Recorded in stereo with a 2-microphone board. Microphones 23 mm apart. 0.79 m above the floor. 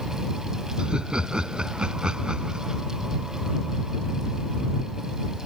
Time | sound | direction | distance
0.8 | laughter | 45° right (ahead or behind) | ?